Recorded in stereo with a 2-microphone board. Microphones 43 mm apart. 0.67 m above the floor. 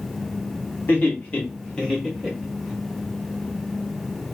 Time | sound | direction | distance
0.9 | laughter | 45° left (ahead or behind) | 1.4 m